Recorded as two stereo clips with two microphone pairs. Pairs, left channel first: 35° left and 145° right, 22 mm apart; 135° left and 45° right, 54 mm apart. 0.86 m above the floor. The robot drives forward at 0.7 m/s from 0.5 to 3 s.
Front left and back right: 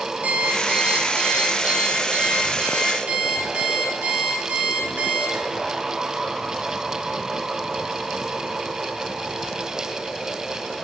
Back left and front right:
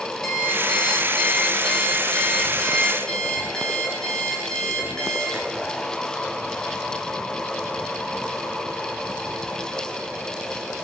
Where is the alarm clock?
140° right, 5.5 m; by 5.7 s 150° right, 7 m.